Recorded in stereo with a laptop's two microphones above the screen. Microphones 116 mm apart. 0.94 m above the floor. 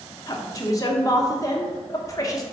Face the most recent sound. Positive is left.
turn(degrees=30)  # may be behind; listen again after turning